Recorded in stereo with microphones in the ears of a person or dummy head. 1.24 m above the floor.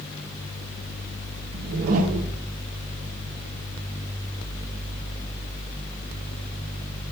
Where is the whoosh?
40° right (ahead or behind), 0.6 m.